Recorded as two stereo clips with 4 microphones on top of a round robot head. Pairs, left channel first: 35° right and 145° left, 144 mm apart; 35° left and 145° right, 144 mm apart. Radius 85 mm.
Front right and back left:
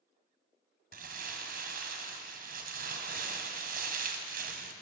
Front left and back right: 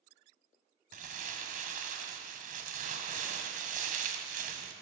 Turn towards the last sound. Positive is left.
turn(degrees=175)